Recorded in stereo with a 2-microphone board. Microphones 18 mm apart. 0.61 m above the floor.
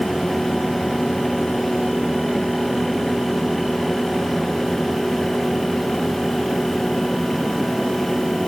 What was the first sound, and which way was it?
Only background noise.